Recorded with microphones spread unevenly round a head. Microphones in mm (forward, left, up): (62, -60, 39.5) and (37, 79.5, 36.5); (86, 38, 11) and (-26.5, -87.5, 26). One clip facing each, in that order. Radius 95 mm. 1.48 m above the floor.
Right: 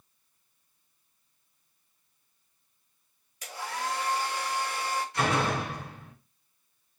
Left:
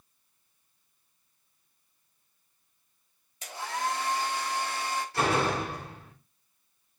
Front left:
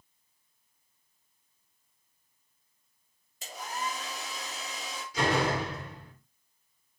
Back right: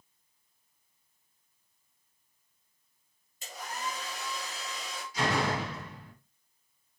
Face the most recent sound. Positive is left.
turn(degrees=45)